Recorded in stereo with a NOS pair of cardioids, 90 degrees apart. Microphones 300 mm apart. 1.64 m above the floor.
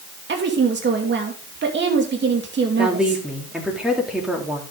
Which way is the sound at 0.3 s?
35° right.